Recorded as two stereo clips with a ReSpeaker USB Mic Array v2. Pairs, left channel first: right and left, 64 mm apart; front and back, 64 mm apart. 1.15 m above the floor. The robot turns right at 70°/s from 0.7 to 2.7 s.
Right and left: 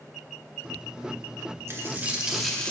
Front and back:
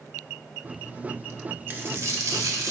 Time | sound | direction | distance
1.7 | a dropped coin | 125° left | 0.9 m